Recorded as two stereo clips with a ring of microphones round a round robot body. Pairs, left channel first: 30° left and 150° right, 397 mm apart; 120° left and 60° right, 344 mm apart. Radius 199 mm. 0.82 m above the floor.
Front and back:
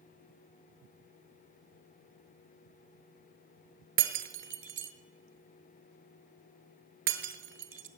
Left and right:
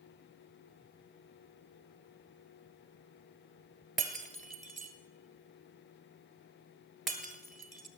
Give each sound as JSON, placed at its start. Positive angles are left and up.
{"t": 4.0, "sound": "breaking glass", "azimuth_deg": -150, "distance_m": 0.8}